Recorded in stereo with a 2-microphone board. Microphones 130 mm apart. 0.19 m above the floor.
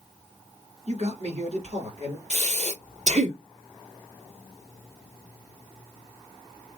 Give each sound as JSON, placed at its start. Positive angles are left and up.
{"t": 0.9, "sound": "a man speaking", "side_deg": -60, "distance_m": 2.0}
{"t": 2.3, "sound": "breathing", "side_deg": -65, "distance_m": 1.7}